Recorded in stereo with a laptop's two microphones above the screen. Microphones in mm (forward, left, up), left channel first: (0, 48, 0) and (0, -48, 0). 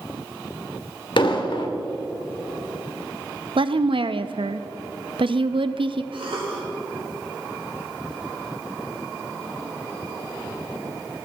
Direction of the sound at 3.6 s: 70° right (ahead or behind).